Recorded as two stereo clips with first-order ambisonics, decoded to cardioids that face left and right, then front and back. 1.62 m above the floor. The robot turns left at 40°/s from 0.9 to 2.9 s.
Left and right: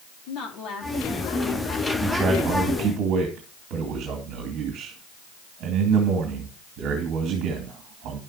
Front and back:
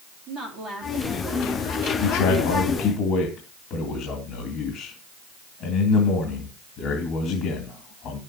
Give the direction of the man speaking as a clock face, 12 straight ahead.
12 o'clock.